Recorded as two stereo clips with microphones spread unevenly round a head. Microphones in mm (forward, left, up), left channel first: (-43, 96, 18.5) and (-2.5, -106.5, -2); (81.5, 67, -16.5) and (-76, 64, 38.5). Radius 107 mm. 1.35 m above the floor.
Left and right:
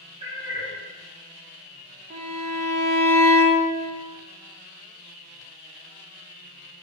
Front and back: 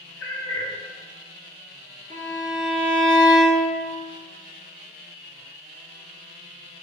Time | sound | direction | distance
0.2 | a cat meowing | 15° right | 1.6 m
2.1 | a violin | 120° right | 1.1 m